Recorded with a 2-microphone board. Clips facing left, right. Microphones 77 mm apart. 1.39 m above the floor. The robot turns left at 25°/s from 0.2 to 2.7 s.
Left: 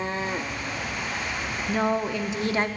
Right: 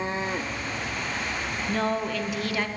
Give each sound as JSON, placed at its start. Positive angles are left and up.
{"t": 1.7, "sound": "a woman speaking", "side_deg": 10, "distance_m": 0.8}